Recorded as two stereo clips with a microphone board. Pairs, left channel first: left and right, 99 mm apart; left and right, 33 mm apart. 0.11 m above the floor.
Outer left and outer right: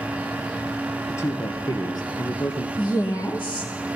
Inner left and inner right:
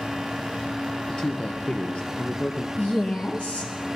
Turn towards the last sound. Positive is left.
turn(degrees=50)  # may be behind; listen again after turning